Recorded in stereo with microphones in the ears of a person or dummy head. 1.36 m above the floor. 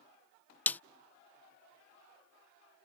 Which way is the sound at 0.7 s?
5° left (ahead or behind).